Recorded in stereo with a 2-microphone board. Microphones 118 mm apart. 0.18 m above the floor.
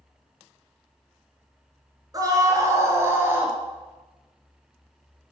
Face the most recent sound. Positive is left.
turn(degrees=-20)  # may be behind; listen again after turning